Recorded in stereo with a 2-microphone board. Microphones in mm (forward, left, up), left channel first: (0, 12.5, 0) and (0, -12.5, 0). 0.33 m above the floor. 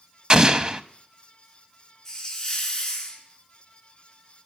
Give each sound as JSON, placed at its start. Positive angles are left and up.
{"t": 0.3, "sound": "an explosion", "side_deg": -30, "distance_m": 0.7}
{"t": 2.0, "sound": "a hiss", "side_deg": 15, "distance_m": 3.0}